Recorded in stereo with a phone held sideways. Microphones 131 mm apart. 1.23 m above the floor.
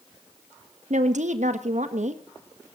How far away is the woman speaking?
About 1.3 m.